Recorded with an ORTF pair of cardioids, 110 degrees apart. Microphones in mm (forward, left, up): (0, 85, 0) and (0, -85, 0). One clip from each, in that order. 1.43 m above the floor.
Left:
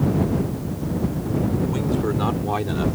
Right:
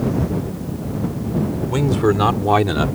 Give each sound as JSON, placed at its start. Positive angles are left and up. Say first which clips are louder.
{"t": 1.7, "sound": "a man speaking", "louder": "right 6 dB", "azimuth_deg": -50}